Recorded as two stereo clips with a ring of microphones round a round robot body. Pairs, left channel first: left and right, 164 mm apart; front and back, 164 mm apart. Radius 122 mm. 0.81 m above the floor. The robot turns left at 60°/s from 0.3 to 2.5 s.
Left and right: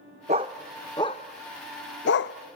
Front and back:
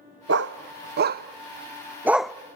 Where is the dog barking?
155° right, 0.6 m; by 2.4 s 85° left, 0.6 m.